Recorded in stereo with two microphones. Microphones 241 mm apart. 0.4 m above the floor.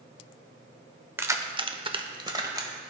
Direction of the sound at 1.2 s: 10° right (ahead or behind).